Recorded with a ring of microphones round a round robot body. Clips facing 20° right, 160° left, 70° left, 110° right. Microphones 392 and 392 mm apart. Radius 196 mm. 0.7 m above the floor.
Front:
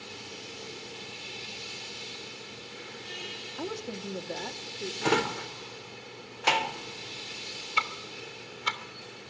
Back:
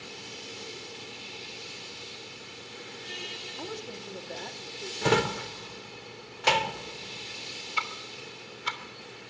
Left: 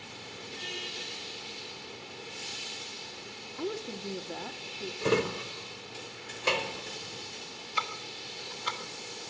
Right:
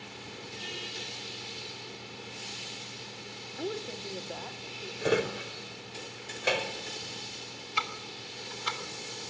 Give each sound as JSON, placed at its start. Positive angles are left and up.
{"t": 3.5, "sound": "a woman speaking", "azimuth_deg": -15, "distance_m": 1.4}
{"t": 5.0, "sound": "a drawer", "azimuth_deg": 150, "distance_m": 0.7}
{"t": 7.8, "sound": "ticking", "azimuth_deg": -65, "distance_m": 3.0}